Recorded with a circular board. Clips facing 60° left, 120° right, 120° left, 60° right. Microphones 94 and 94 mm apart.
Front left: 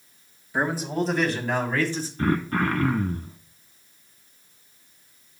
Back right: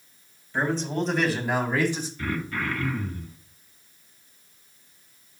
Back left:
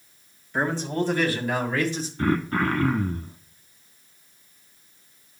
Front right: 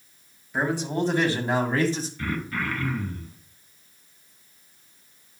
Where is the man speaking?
15° left, 1.6 m; by 2.1 s 60° right, 2 m.